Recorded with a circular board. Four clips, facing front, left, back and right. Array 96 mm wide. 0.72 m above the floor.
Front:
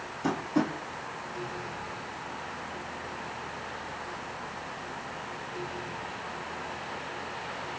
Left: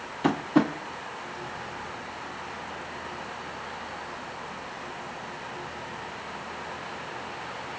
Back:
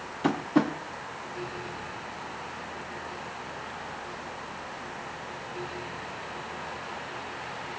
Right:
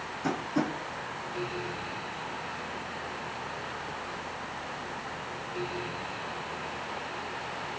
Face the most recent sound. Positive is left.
turn(degrees=120)